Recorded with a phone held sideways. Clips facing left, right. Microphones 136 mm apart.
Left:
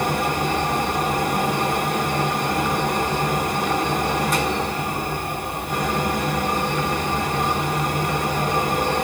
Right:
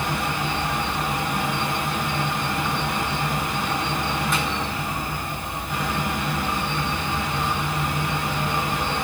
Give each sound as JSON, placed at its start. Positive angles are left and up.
{"t": 0.0, "sound": "a fan", "side_deg": 40, "distance_m": 1.2}